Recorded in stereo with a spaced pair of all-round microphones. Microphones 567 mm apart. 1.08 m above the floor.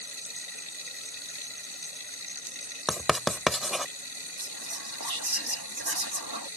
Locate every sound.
0.0 s running water: 75° left (ahead or behind)
2.9 s writing: centre (ahead or behind)
4.4 s whispering: 40° right (ahead or behind)